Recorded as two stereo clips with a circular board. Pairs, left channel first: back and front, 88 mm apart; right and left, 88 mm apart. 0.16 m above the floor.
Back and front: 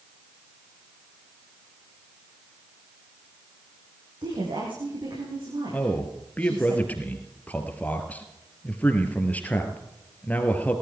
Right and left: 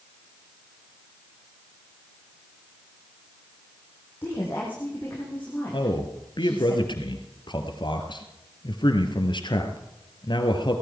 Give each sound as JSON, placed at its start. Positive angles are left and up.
{"t": 4.2, "sound": "a woman speaking", "azimuth_deg": -25, "distance_m": 6.0}
{"t": 5.7, "sound": "a man speaking", "azimuth_deg": -110, "distance_m": 2.5}